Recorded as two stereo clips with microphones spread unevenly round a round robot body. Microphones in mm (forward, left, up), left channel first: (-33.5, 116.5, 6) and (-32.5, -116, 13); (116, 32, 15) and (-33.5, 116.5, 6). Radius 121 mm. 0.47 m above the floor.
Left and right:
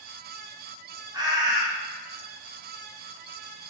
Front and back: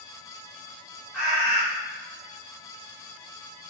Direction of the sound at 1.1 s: 135° right.